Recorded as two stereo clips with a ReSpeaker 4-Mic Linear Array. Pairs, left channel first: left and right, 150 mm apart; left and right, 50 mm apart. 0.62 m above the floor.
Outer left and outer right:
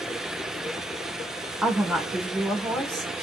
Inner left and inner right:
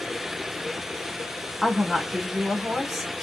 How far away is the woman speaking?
About 2 m.